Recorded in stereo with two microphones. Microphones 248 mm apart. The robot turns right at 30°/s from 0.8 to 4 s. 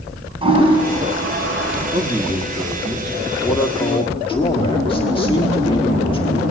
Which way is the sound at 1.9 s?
35° right.